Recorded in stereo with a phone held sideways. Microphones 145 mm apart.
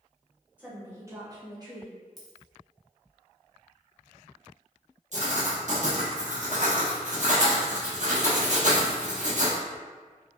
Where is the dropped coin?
Centre (ahead or behind), 0.8 m.